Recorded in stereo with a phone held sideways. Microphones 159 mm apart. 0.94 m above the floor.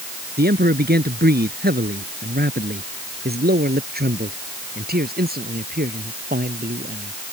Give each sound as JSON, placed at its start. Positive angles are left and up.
{"t": 0.4, "sound": "a man speaking", "side_deg": -85}